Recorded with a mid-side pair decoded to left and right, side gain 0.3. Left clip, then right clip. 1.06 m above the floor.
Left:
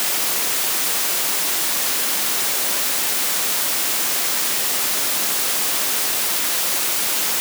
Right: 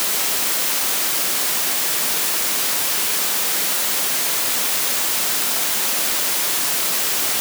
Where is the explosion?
I don't hear an explosion.